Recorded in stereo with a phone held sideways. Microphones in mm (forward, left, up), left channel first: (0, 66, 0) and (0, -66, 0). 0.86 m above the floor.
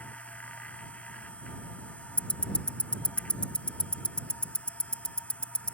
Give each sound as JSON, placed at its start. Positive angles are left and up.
{"t": 0.0, "sound": "a machine running", "side_deg": 10}
{"t": 2.2, "sound": "ticking", "side_deg": 10}